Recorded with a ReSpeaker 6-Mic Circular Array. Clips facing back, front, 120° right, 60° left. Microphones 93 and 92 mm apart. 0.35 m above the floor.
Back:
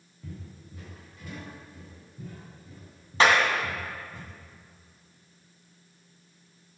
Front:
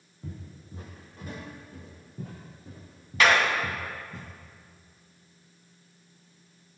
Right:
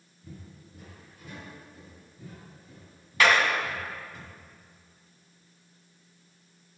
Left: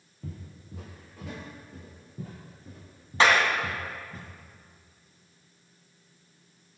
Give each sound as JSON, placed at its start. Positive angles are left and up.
{"t": 0.2, "sound": "footsteps", "azimuth_deg": 65, "distance_m": 5.0}
{"t": 3.2, "sound": "a clap", "azimuth_deg": 120, "distance_m": 2.0}